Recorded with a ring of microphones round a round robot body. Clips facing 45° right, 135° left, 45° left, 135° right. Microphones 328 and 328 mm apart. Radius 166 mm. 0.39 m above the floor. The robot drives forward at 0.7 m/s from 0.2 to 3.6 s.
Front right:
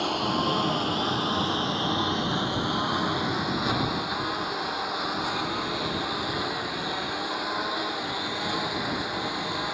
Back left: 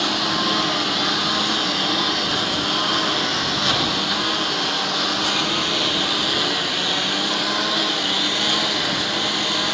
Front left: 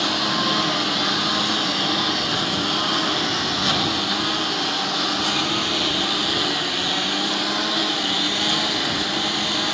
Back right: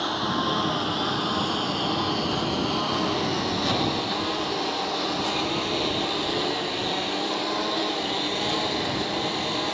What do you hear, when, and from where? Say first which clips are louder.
0.0 s a lawn mower: back left 3 dB, front left 2 dB; 85° left; by 9.8 s 100° left